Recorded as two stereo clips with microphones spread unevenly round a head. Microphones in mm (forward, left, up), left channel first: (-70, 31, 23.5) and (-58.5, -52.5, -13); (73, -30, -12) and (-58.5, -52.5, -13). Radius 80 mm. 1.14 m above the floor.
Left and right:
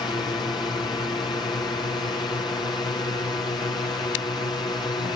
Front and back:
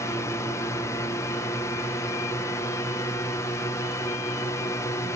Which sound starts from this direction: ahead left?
A drone, at 0.0 s.